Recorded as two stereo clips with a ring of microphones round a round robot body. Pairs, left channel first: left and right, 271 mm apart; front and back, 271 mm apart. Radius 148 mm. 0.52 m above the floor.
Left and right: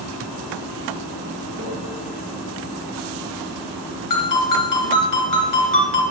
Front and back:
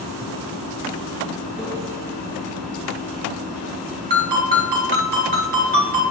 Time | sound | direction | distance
1.6 | a microwave | 95° right | 3 m
4.1 | a ringtone | 120° left | 3 m